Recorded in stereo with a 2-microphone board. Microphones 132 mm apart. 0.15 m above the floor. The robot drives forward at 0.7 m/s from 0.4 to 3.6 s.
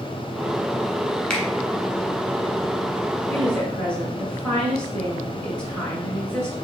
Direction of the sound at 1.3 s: 10° left (ahead or behind).